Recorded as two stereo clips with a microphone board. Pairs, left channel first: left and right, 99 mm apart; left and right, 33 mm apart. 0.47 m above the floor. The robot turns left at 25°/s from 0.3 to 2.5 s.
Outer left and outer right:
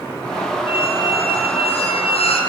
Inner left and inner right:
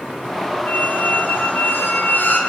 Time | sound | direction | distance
0.7 | a squeak | 115° left | 5.5 m